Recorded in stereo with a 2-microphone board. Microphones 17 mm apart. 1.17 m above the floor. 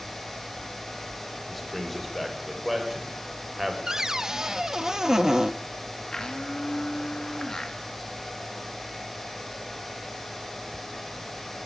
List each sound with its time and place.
1.5 s a man speaking: 10° left (ahead or behind), 4.5 m; by 3.8 s 15° right (ahead or behind), 5 m
3.9 s a cupboard door: 35° right (ahead or behind), 0.6 m
6.1 s a blender: 45° left (ahead or behind), 2.5 m